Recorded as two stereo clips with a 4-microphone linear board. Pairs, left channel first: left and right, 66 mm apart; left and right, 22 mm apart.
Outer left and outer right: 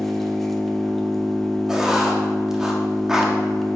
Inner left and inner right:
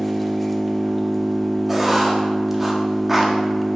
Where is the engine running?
5° left (ahead or behind), 1.1 m.